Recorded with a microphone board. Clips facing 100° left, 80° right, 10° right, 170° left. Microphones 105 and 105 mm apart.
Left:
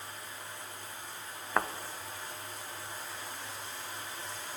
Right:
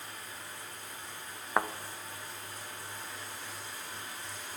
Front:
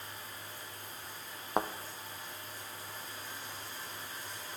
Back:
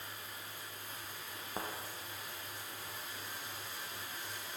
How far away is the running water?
About 3.5 m.